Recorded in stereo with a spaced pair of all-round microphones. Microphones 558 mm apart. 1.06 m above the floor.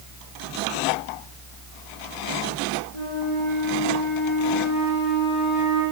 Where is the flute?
60° left (ahead or behind), 9.5 m.